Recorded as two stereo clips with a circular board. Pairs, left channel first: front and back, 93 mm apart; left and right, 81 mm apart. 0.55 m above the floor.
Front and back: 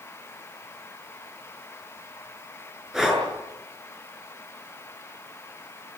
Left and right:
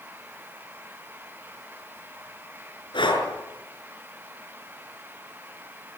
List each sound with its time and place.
2.9 s breathing: 95° left, 6 m